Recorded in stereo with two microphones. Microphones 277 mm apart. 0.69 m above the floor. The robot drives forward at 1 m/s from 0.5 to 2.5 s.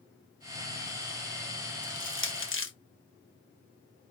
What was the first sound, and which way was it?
Crushing, 40° left (ahead or behind).